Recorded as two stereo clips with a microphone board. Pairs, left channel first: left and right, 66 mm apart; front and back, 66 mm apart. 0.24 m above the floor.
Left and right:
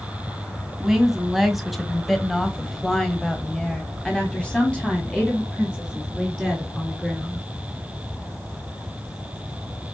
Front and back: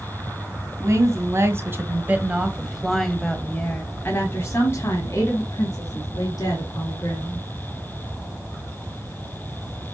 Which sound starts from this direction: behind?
A woman speaking, at 0.8 s.